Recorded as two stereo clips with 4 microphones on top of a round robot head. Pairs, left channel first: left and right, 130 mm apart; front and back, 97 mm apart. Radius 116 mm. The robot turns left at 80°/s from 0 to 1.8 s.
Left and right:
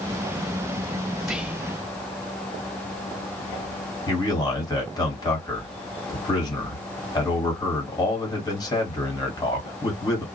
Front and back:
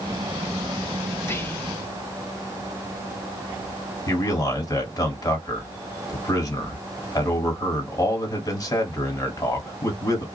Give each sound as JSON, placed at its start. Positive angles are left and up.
{"t": 1.2, "sound": "whispering", "azimuth_deg": -5, "distance_m": 0.7}
{"t": 4.1, "sound": "a man speaking", "azimuth_deg": 40, "distance_m": 1.6}